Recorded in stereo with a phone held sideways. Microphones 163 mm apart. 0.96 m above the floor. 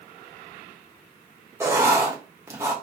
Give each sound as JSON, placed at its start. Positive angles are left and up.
{"t": 1.6, "sound": "writing", "side_deg": -15, "distance_m": 1.0}